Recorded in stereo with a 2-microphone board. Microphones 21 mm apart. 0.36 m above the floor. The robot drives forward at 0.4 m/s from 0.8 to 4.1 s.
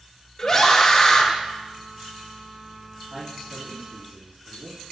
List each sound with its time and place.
0.4 s a scream: 20° left (ahead or behind), 0.8 m
3.1 s a man speaking: 70° right (ahead or behind), 3.5 m